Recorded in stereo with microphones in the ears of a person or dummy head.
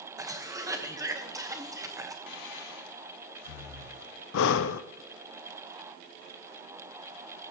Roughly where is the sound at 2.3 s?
Left.